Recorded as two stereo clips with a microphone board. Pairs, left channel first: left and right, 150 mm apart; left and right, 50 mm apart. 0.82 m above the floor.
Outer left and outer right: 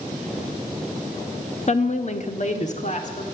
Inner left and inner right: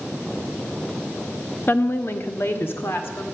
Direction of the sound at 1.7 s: 50° left (ahead or behind).